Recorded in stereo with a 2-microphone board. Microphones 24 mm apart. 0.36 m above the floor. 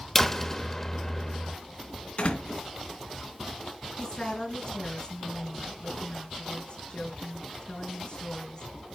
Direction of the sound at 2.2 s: 60° left (ahead or behind).